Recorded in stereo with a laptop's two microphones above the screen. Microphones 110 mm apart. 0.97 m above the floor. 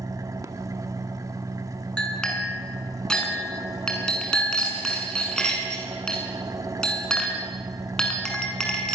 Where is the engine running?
30° right (ahead or behind), 1.5 m.